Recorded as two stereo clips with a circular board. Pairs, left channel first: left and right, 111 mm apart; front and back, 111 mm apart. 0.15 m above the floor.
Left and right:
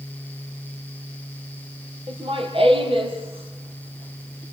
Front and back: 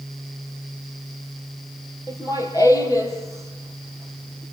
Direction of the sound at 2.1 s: 55° right.